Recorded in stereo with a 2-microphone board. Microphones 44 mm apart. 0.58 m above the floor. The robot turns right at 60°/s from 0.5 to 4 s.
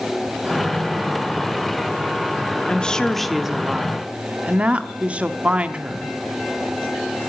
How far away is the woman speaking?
About 1.0 m.